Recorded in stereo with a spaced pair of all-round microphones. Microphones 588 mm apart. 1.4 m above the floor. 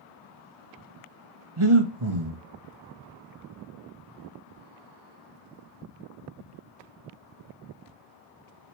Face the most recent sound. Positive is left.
turn(degrees=-50)  # may be behind; listen again after turning